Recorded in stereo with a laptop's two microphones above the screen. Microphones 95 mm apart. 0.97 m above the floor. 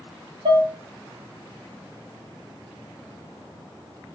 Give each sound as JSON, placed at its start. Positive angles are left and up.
{"t": 0.5, "sound": "dishes clattering", "side_deg": -75, "distance_m": 0.9}